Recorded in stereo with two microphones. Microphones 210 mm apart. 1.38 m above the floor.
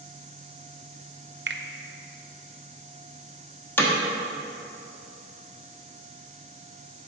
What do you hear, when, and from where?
1.5 s a finger snap: 60° right (ahead or behind), 0.5 m
3.8 s hammering: 10° left (ahead or behind), 1.2 m